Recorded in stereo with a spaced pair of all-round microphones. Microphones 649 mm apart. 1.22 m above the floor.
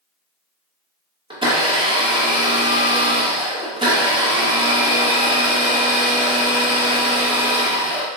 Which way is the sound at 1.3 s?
10° right (ahead or behind).